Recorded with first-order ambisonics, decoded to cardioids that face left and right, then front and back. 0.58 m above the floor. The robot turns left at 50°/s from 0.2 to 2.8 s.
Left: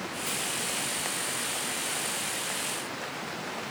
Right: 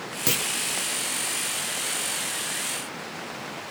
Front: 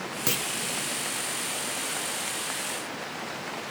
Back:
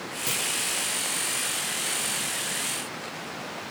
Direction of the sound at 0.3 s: 70° right.